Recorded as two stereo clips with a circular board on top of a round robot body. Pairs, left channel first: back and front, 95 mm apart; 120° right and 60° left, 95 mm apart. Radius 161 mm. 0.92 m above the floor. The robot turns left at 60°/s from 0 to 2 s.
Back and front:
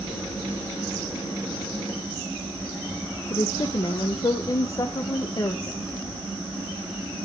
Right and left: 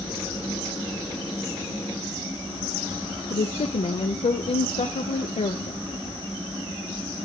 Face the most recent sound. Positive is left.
turn(degrees=-130)